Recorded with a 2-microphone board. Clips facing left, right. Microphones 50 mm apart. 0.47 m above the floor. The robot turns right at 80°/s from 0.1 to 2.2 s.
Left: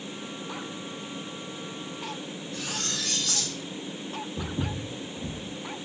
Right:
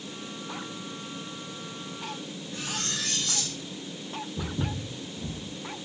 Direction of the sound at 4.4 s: 20° left (ahead or behind).